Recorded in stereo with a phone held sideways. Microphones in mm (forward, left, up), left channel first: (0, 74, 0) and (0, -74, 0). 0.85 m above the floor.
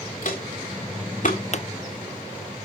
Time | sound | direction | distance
0.2 | footsteps | 65° left (ahead or behind) | 3 m
1.5 | a pop | 50° left (ahead or behind) | 0.6 m